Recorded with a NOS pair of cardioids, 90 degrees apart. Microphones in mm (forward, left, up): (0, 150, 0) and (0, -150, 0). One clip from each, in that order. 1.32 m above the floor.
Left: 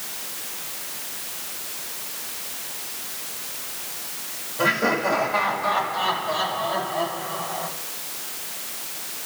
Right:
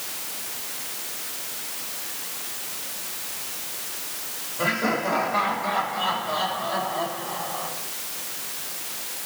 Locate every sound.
4.6 s laughter: 35° left, 6 m; by 7.7 s 25° left, 7.5 m